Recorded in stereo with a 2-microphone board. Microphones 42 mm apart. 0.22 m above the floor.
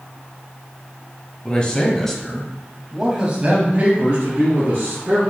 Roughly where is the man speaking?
Left.